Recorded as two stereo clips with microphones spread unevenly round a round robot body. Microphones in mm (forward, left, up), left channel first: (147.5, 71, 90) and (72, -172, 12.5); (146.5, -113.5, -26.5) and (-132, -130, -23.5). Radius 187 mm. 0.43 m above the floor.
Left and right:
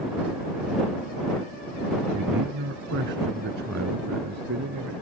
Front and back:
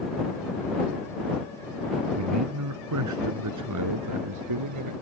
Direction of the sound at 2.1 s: 155° right.